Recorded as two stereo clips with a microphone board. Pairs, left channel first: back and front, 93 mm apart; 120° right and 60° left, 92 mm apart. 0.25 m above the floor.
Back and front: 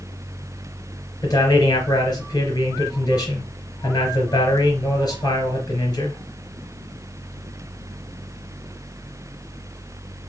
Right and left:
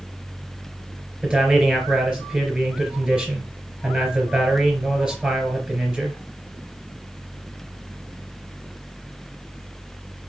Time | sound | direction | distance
1.2 | a man speaking | 140° left | 3 m